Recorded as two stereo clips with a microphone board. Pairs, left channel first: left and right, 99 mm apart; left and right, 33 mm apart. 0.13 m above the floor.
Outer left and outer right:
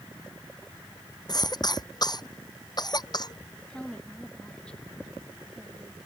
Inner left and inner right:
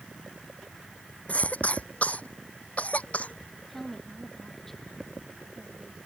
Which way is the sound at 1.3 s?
45° left (ahead or behind).